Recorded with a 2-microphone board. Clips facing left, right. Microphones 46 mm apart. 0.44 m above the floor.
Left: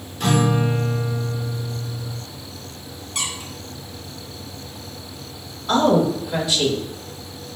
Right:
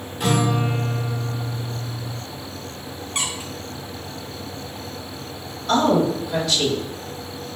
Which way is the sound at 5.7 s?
15° left (ahead or behind).